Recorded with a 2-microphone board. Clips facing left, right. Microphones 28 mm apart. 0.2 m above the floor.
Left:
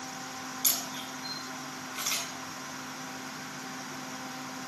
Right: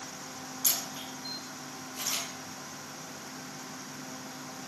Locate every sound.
0.6 s a camera shutter: 50° left (ahead or behind), 5 m